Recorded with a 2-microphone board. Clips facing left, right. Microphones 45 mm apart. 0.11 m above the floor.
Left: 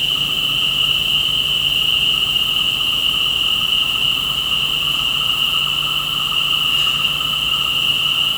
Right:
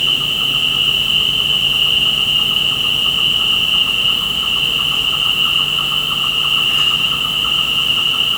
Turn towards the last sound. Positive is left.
turn(degrees=-80)